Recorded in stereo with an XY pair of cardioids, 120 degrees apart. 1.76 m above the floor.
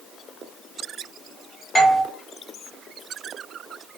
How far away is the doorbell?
About 0.9 m.